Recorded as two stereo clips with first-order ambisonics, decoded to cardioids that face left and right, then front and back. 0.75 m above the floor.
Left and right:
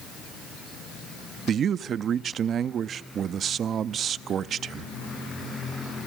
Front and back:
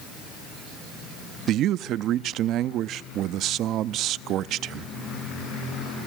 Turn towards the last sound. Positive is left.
turn(degrees=-145)